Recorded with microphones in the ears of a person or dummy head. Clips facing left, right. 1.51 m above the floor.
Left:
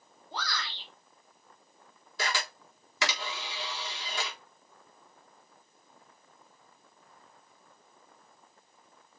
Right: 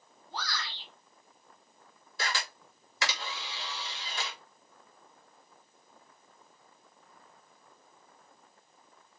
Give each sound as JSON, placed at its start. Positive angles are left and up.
{"t": 0.3, "sound": "a shout", "side_deg": 65, "distance_m": 4.0}
{"t": 2.2, "sound": "a camera shutter", "side_deg": 75, "distance_m": 4.5}